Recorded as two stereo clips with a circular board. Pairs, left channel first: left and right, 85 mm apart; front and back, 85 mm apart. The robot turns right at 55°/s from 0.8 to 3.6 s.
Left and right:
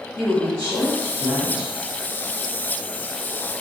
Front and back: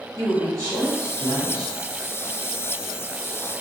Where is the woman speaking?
140° left, 1.9 m; by 1.7 s 165° right, 1.9 m.